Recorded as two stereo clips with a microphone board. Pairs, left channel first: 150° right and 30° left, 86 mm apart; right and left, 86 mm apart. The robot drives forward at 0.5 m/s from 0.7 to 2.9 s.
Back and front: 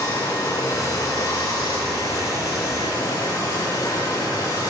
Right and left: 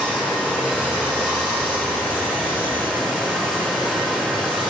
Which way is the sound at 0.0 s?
160° left.